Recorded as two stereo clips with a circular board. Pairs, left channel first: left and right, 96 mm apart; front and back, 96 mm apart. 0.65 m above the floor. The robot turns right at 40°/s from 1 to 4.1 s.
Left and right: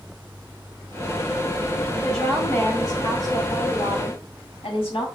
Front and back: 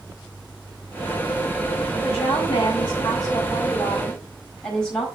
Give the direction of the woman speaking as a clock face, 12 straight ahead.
12 o'clock.